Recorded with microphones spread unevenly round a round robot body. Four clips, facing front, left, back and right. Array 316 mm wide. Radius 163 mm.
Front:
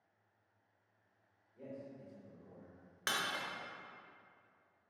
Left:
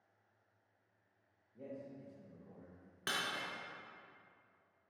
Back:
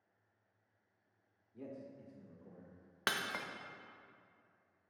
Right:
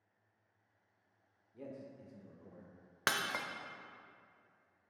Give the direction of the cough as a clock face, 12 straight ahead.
No cough in this recording.